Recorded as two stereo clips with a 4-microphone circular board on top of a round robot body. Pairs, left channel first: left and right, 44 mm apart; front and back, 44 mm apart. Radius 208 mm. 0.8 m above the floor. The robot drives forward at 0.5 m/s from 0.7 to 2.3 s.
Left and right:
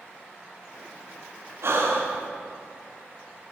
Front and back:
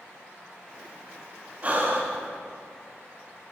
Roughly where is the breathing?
Behind right.